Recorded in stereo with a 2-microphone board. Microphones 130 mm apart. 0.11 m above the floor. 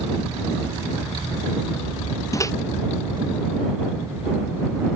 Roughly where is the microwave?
Left.